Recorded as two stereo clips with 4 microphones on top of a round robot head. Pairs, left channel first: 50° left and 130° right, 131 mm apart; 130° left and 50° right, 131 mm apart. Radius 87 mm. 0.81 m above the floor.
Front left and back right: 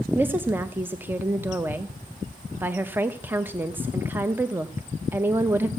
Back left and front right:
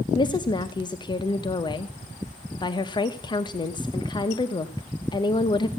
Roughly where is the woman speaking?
Behind.